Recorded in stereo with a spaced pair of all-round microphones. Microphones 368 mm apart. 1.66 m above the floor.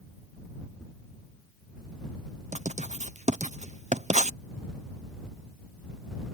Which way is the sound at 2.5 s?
20° right (ahead or behind).